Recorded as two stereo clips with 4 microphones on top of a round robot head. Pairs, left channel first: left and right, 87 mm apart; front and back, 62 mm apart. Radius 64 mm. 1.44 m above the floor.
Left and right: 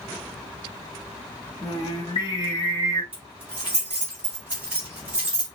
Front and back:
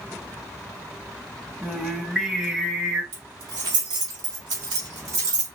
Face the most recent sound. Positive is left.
turn(degrees=-165)